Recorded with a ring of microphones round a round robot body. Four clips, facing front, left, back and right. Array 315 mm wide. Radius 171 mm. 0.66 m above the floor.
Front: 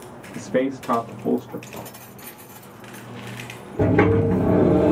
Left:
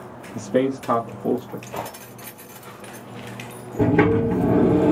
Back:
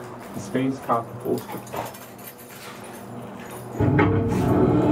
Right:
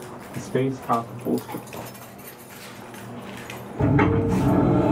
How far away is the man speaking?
About 0.9 m.